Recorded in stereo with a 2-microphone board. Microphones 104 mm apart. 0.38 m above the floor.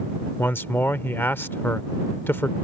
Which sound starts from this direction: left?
A man speaking, at 0.4 s.